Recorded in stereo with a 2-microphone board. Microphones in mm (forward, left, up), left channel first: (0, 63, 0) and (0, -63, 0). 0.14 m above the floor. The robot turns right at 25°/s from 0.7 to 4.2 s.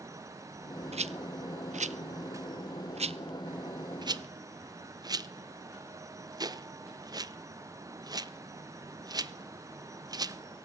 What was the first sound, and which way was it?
A rattle, 65° right (ahead or behind).